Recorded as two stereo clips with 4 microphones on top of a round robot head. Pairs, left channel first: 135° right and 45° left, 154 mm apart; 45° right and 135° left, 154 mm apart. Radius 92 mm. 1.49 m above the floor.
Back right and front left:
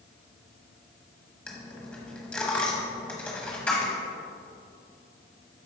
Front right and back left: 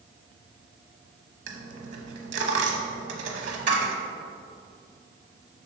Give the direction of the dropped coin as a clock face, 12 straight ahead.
7 o'clock.